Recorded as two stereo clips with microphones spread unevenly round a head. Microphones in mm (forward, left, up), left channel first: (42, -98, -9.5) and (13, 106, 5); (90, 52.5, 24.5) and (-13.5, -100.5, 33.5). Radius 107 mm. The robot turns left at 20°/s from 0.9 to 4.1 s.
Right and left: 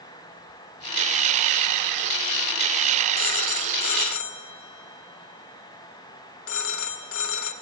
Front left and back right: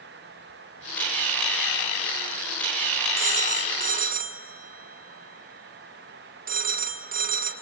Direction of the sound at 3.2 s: 75° right.